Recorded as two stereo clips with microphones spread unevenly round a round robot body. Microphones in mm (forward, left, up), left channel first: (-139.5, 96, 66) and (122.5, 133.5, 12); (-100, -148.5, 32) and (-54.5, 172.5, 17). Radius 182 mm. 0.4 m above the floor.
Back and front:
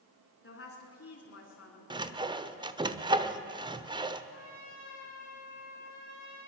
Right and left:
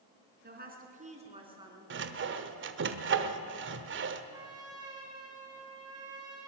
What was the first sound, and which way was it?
A woman speaking, 145° left.